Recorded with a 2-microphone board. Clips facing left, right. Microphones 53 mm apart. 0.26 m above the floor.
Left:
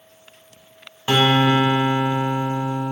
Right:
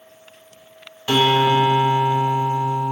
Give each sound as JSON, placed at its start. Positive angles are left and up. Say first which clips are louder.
{"t": 1.1, "sound": "a guitar", "louder": "right 1 dB", "side_deg": 20, "distance_m": 0.7}